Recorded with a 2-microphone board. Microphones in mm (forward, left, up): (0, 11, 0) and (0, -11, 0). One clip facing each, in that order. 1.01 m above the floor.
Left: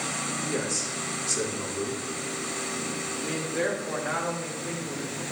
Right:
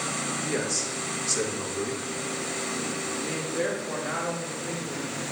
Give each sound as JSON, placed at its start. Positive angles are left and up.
{"t": 0.5, "sound": "a man speaking", "side_deg": -20, "distance_m": 1.0}
{"t": 3.2, "sound": "a man speaking", "side_deg": 5, "distance_m": 1.5}